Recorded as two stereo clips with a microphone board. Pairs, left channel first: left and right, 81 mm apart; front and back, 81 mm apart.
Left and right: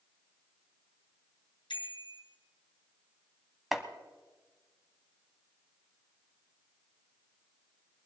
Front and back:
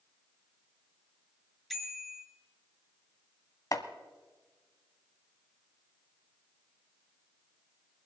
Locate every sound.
1.7 s a bicycle bell: 90° left, 2.5 m
3.7 s chopping: 5° right, 1.2 m